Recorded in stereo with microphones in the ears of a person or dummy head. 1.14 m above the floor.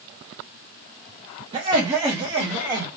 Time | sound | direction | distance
1.5 | laughter | 25° right (ahead or behind) | 0.9 m